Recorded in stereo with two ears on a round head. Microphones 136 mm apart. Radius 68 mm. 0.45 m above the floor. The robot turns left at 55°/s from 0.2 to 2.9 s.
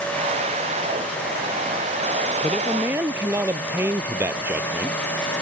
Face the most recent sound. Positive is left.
turn(degrees=-15)  # may be behind; listen again after turning